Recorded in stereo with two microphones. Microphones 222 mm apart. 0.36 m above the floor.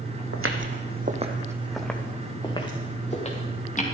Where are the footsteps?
75° right (ahead or behind), 1.3 m; by 3.8 s 30° left (ahead or behind), 3 m.